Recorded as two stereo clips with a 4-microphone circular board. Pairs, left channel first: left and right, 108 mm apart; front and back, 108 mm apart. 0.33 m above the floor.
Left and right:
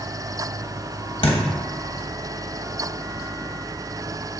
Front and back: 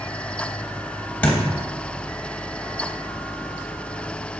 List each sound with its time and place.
1.2 s a thud: 75° left, 0.9 m